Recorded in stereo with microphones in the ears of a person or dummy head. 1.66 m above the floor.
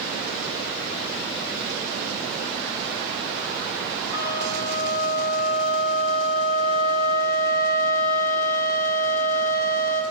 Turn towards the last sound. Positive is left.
turn(degrees=55)  # may be behind; listen again after turning